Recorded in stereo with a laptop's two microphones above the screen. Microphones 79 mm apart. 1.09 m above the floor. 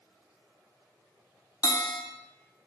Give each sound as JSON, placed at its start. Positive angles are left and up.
{"t": 1.6, "sound": "a bell", "side_deg": 50, "distance_m": 0.5}